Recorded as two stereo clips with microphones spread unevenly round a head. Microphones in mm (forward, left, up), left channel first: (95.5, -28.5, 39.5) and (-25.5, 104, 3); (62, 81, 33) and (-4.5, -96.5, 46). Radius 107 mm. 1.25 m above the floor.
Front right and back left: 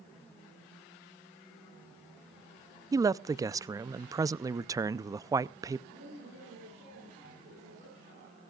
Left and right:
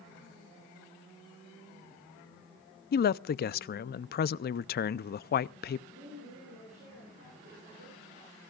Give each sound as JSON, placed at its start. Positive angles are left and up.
{"t": 2.9, "sound": "a man speaking", "azimuth_deg": 75, "distance_m": 0.5}
{"t": 5.9, "sound": "a woman speaking", "azimuth_deg": -165, "distance_m": 10.0}